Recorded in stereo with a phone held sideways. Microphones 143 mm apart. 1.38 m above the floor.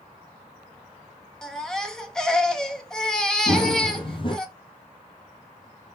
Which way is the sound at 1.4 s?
5° left (ahead or behind).